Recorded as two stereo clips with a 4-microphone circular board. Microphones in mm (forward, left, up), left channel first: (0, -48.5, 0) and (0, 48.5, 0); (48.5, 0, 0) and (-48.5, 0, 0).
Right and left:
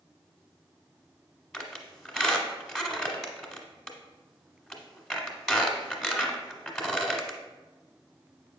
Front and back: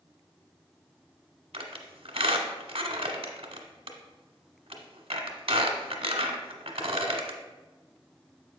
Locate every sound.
1.5 s a squeak: 175° right, 1.0 m